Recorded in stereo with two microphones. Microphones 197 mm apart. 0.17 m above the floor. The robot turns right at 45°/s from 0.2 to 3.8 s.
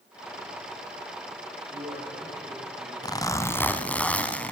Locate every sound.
1.7 s a man speaking: 45° right, 9 m; by 2.9 s 10° left, 9 m
3.0 s a zipper: 20° left (ahead or behind), 1.7 m; by 4.5 s 5° left (ahead or behind), 1.7 m